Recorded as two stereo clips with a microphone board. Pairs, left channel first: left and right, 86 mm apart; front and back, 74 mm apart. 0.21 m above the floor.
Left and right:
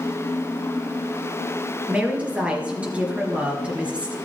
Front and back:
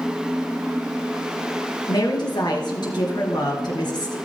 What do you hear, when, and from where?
1.9 s a woman speaking: 15° right, 3.5 m